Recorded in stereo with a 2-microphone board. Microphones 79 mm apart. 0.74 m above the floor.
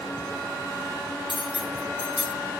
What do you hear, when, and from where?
1.3 s cutlery clinking: 80° left, 4 m